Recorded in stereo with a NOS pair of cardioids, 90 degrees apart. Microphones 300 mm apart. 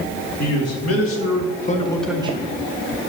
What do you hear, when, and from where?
0.4 s a man speaking: 60° left, 2.5 m; by 2.5 s 35° right, 1.0 m